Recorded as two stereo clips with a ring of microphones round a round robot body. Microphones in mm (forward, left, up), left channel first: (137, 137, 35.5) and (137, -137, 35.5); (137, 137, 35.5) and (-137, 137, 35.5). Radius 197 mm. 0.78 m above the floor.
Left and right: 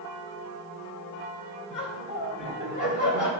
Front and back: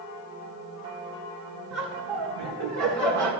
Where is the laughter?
165° left, 3 m; by 3.3 s 155° left, 2 m.